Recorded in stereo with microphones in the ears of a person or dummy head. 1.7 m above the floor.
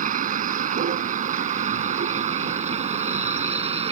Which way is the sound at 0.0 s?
55° right (ahead or behind).